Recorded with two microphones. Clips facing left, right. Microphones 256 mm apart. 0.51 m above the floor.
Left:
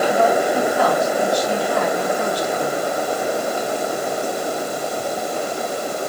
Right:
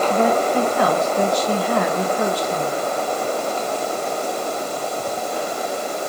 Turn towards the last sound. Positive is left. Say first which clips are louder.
# even
turn(degrees=-65)  # may be behind; listen again after turning